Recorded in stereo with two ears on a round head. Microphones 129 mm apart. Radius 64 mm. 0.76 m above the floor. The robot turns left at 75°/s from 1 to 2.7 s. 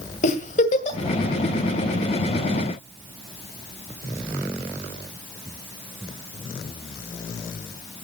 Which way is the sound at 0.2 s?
50° left (ahead or behind).